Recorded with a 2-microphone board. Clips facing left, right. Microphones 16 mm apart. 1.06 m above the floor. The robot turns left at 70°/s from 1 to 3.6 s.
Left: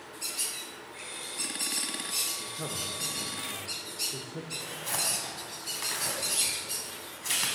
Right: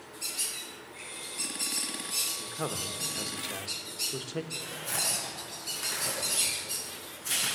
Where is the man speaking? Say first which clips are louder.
Right 1 dB; 25° right, 0.9 m; by 4.4 s 110° right, 0.9 m.